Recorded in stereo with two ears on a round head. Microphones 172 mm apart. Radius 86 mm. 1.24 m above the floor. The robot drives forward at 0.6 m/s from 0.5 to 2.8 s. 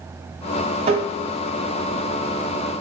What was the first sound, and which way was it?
Tapping, 35° right (ahead or behind).